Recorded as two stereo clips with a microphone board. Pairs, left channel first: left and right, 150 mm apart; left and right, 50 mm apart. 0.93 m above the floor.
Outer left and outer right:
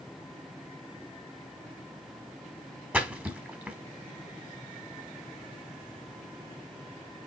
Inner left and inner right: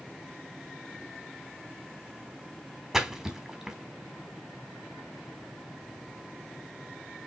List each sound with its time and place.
2.9 s a splash: 10° right (ahead or behind), 1.0 m